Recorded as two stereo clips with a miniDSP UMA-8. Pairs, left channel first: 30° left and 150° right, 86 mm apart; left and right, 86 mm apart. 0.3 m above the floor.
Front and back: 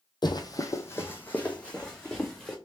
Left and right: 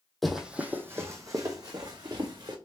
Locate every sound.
0.2 s running footsteps: straight ahead, 0.8 m; by 2.5 s 55° right, 1.9 m